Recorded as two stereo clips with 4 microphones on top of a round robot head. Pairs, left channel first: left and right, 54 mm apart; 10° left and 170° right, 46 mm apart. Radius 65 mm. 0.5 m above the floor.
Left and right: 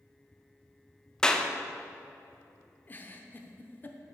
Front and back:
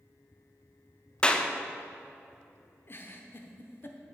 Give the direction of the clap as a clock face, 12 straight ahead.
11 o'clock.